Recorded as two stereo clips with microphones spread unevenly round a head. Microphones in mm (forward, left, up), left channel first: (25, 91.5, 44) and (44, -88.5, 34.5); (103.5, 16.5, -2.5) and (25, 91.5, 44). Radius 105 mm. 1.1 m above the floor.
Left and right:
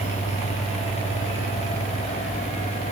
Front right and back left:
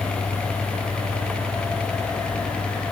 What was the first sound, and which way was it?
Only background noise.